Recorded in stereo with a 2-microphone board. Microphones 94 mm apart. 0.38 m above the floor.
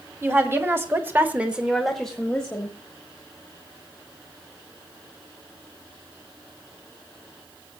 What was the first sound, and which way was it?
A woman speaking, 25° right (ahead or behind).